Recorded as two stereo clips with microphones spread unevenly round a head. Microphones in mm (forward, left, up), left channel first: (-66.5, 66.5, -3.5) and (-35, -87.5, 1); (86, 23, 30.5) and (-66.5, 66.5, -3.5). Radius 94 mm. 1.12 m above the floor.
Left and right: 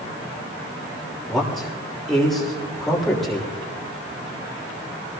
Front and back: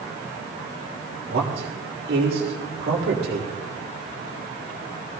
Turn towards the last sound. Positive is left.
turn(degrees=-170)